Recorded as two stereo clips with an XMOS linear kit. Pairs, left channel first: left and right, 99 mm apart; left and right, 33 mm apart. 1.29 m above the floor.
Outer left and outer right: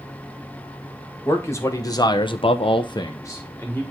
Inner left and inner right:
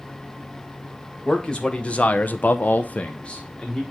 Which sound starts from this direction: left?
A man speaking, at 1.2 s.